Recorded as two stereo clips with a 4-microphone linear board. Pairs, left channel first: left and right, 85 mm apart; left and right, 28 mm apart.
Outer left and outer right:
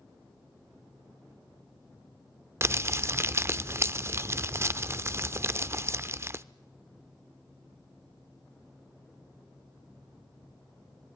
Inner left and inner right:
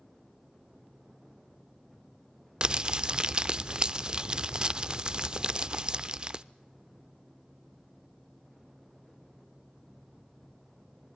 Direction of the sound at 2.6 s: 30° right (ahead or behind).